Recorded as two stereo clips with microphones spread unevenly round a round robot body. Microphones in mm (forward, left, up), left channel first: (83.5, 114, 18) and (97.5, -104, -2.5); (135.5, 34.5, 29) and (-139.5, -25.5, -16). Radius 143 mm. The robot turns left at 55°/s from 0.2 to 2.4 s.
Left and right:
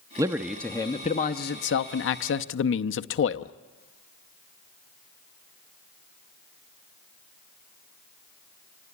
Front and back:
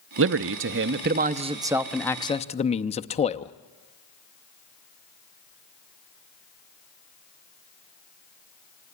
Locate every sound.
0.2 s a man speaking: 155° right, 0.6 m; by 3.5 s 85° left, 0.6 m